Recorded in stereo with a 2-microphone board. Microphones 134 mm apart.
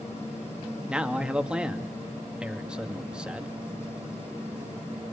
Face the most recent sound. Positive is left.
turn(degrees=-5)  # may be behind; listen again after turning